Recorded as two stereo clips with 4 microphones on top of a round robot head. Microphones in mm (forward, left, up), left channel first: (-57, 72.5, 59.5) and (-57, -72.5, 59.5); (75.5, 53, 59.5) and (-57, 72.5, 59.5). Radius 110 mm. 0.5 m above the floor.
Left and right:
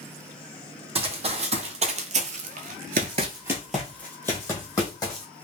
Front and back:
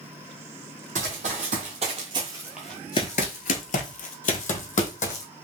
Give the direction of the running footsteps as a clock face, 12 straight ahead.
5 o'clock.